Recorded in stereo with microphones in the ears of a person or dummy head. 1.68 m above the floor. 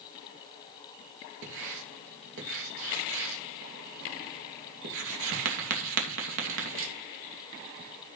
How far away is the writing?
About 2.5 m.